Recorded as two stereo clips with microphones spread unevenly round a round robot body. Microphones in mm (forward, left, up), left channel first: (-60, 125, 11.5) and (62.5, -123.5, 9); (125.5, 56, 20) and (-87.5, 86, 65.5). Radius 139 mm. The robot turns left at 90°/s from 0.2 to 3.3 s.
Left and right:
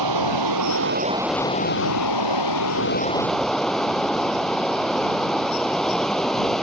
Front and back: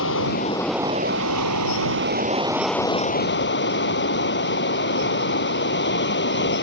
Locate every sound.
0.0 s running water: 55° right; by 6.6 s 30° left